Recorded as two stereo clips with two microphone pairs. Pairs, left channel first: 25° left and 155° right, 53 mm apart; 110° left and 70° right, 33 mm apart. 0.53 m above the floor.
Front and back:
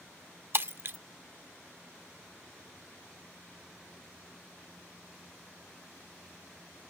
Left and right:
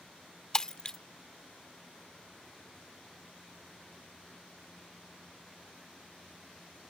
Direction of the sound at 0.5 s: 175° left.